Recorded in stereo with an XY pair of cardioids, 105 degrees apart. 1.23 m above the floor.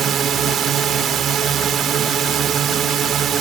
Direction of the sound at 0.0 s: 60° right.